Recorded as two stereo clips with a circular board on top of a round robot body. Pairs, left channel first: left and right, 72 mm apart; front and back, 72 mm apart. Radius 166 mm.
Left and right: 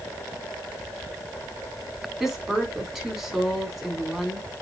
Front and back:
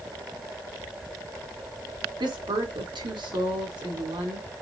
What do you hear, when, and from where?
2.2 s a woman speaking: 175° right, 3.5 m